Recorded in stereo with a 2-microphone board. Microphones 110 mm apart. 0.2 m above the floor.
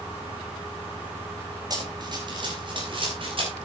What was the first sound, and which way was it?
Running footsteps, 35° right (ahead or behind).